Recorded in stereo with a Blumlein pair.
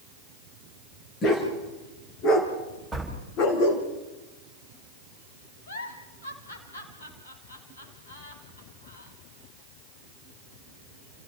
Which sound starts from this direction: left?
A giggle, at 5.7 s.